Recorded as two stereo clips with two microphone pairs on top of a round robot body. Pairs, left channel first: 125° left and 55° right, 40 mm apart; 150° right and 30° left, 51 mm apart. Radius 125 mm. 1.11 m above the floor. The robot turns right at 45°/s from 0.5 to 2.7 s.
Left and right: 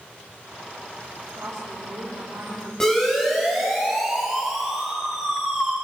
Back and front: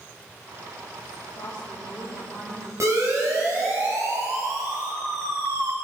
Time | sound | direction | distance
1.1 | a woman speaking | 95° right | 5.5 m
2.8 | a siren | 50° left | 7 m